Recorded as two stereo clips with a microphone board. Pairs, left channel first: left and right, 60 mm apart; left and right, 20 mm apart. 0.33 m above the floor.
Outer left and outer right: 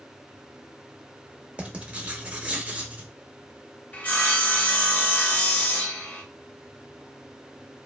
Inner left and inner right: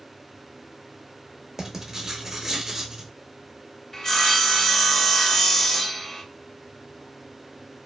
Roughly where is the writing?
Right.